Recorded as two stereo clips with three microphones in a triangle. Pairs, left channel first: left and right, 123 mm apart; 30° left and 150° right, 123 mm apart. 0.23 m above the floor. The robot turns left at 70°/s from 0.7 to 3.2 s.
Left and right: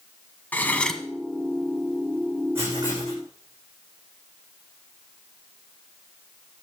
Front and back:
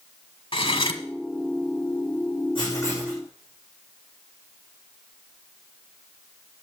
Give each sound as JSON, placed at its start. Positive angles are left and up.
{"t": 0.5, "sound": "cutlery clinking", "azimuth_deg": 20, "distance_m": 1.1}
{"t": 2.5, "sound": "writing", "azimuth_deg": -15, "distance_m": 8.5}